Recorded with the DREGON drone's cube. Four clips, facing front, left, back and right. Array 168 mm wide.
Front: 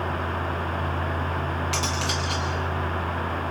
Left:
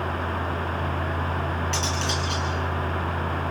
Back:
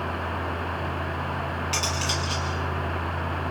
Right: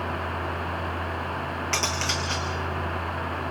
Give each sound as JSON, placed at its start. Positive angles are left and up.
{"t": 1.7, "sound": "cutlery clinking", "azimuth_deg": -65, "distance_m": 5.5}